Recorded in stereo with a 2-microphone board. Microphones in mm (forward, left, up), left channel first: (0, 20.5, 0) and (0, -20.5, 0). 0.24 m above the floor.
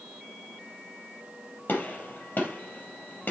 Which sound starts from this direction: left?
A gunshot, at 1.7 s.